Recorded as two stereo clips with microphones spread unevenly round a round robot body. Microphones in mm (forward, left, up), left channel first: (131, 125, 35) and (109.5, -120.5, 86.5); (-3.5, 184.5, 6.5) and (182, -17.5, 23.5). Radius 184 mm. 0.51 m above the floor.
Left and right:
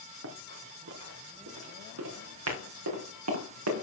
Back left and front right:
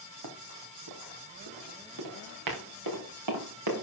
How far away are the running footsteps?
About 3 m.